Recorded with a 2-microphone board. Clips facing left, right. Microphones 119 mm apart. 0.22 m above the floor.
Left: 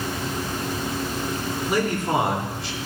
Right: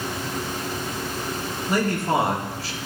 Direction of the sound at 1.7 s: 15° left (ahead or behind).